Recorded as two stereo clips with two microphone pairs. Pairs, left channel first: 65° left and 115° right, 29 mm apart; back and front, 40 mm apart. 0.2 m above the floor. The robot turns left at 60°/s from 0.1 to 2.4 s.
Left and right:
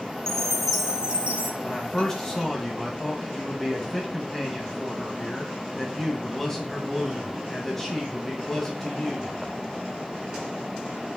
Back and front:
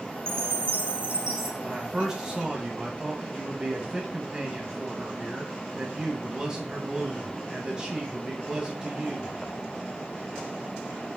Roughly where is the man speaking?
Ahead left.